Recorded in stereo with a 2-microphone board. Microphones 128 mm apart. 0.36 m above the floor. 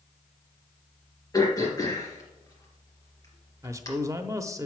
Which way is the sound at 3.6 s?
25° right (ahead or behind).